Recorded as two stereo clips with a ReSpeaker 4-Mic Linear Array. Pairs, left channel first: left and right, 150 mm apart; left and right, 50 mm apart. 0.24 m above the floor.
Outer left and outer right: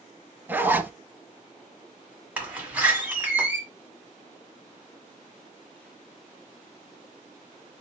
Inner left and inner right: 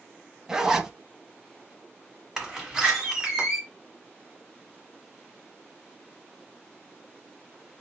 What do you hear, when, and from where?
0.5 s a zipper: 15° right (ahead or behind), 0.6 m
2.4 s a door slam: 10° right (ahead or behind), 1.4 m